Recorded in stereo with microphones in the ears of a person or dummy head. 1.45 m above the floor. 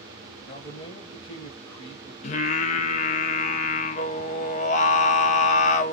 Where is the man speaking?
25° left (ahead or behind), 1.1 m.